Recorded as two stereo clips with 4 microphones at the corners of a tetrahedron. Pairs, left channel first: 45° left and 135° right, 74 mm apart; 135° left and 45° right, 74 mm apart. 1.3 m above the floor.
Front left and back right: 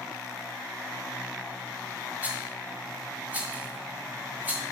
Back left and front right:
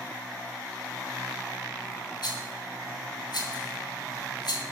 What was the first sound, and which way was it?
A rattle, 155° left.